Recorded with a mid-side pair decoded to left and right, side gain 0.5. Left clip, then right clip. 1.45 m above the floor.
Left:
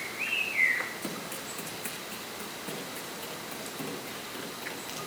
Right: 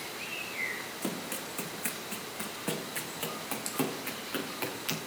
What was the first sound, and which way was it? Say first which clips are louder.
Running footsteps: right 1 dB; 20° right.